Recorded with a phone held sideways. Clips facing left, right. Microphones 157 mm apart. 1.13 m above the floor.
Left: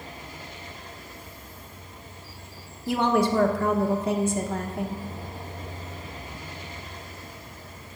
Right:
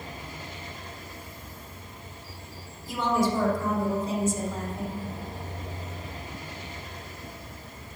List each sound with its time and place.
2.9 s a woman speaking: 75° left (ahead or behind), 1.1 m